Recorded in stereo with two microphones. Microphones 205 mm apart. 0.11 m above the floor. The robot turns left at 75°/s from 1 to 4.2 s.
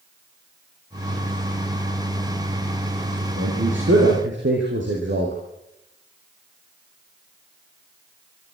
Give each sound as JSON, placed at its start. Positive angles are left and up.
{"t": 3.4, "sound": "a man speaking", "azimuth_deg": -45, "distance_m": 4.5}